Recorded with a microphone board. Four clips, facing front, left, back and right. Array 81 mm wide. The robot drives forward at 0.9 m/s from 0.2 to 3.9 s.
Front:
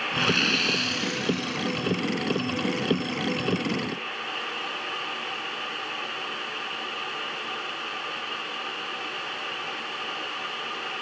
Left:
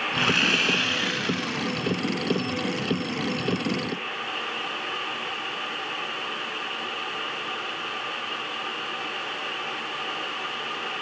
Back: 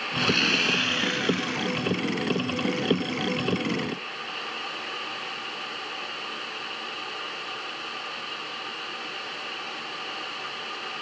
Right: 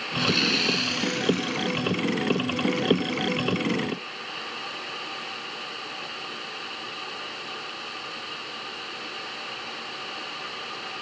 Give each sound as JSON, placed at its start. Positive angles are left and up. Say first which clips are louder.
{"t": 0.2, "sound": "sawing", "louder": "even, back 1 dB", "azimuth_deg": 65, "distance_m": 1.0}